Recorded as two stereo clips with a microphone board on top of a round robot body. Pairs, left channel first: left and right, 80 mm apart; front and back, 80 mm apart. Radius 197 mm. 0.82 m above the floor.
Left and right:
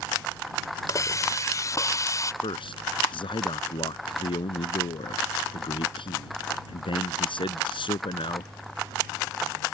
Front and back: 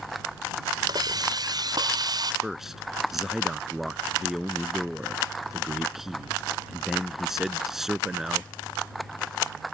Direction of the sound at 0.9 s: 140° left.